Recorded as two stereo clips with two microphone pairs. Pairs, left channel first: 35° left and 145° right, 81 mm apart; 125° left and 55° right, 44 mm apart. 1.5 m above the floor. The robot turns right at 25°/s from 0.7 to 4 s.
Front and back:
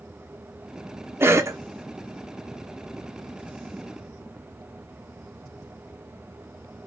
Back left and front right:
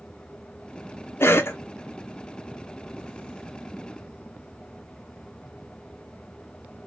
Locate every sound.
1.2 s a cough: 150° left, 0.7 m; by 1.6 s 160° left, 0.7 m